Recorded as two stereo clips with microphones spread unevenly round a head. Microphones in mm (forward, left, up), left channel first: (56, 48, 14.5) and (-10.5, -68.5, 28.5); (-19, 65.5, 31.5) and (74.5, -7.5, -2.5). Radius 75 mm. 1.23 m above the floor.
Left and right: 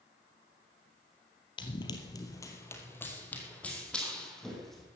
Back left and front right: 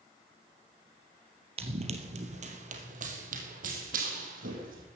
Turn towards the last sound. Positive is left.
turn(degrees=-30)